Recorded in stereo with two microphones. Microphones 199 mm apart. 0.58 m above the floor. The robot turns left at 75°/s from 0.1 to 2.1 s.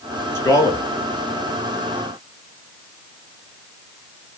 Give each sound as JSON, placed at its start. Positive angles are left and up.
{"t": 0.3, "sound": "a man speaking", "side_deg": 15, "distance_m": 0.8}